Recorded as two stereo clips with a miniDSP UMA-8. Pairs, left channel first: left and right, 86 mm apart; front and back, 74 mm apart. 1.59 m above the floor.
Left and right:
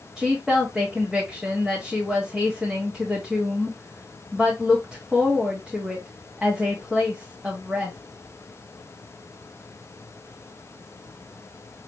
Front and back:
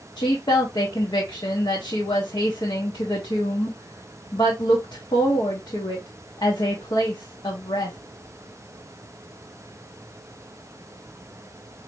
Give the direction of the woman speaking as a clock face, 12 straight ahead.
12 o'clock.